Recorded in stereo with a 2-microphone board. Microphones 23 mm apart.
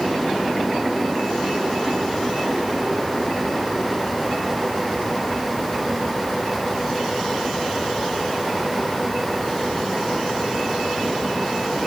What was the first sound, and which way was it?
Only background noise.